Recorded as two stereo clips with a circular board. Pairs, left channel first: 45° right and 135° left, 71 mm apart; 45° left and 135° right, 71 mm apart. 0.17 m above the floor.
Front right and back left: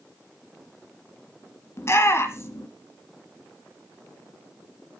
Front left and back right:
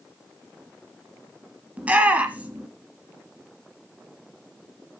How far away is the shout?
About 1.7 m.